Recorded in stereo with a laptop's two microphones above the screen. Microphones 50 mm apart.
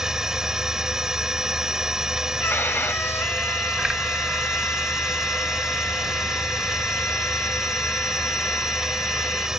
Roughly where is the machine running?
Centre.